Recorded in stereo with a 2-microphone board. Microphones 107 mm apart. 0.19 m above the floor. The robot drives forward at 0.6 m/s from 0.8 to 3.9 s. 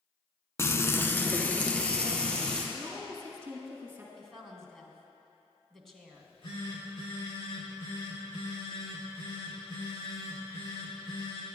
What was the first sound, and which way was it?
Frying, 25° left (ahead or behind).